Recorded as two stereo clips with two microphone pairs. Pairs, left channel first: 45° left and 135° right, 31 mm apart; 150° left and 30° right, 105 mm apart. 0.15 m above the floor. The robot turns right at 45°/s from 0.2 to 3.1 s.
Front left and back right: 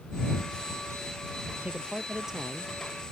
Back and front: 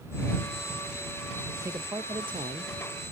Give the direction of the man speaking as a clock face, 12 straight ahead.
3 o'clock.